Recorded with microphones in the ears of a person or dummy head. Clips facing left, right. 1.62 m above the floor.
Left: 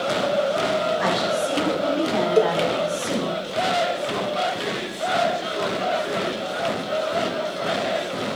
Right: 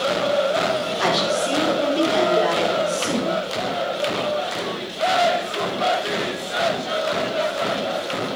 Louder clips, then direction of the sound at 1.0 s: Right 1 dB; 45° right (ahead or behind).